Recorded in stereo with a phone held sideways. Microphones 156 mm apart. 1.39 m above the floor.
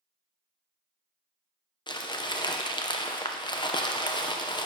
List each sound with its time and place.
1.9 s crumpling: 30° left (ahead or behind), 0.7 m